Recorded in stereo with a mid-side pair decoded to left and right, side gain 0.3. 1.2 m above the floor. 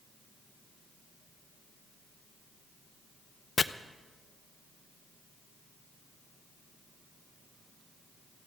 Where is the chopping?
55° left, 0.6 m.